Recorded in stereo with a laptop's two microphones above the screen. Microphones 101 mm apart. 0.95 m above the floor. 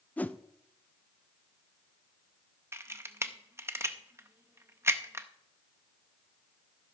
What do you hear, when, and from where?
0.2 s a whoosh: 15° left (ahead or behind), 0.5 m
2.7 s a camera shutter: 25° right (ahead or behind), 0.5 m